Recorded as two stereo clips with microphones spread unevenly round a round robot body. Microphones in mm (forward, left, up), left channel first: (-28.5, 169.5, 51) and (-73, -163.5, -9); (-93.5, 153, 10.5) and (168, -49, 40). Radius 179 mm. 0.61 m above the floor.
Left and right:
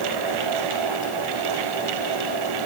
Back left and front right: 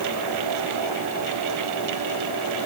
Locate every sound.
Only background noise.